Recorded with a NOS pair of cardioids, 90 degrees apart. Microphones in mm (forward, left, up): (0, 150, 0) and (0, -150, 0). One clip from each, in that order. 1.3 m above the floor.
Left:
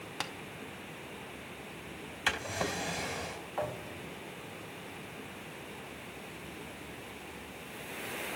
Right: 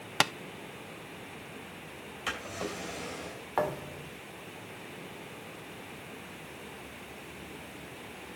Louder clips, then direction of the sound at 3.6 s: Right 6 dB; 65° right.